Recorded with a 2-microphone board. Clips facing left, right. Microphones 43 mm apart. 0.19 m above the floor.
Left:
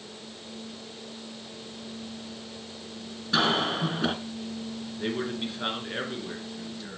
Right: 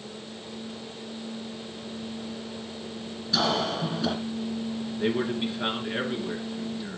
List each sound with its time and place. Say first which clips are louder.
3.3 s a cough: left 1 dB; 40° left (ahead or behind), 2.5 m
5.0 s a man speaking: right 4 dB; 5° right (ahead or behind), 2.5 m